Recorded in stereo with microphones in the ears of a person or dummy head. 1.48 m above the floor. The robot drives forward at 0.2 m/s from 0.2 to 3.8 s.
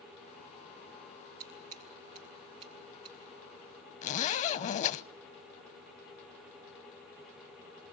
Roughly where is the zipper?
Left.